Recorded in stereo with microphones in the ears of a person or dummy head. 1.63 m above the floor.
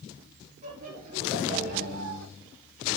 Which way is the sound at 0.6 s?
30° right (ahead or behind).